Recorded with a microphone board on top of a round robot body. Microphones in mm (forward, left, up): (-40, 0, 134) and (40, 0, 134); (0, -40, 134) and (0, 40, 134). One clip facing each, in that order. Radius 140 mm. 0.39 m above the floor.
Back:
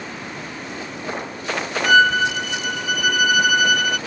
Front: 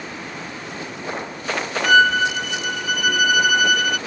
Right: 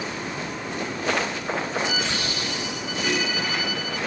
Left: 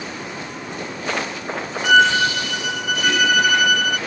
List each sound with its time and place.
1.8 s a violin: 90° left